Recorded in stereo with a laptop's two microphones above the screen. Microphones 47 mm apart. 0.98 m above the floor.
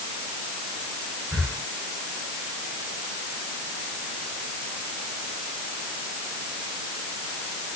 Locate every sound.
1.3 s breathing: 60° right (ahead or behind), 5.5 m